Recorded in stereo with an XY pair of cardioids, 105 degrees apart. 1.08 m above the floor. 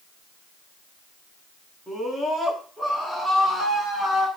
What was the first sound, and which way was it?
A scream, straight ahead.